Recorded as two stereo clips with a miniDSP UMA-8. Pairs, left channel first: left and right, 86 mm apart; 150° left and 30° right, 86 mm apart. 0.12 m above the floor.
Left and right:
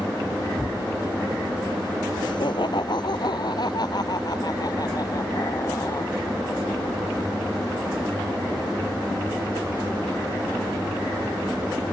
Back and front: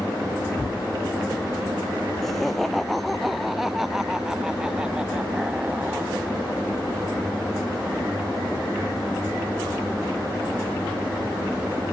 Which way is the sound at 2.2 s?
65° left.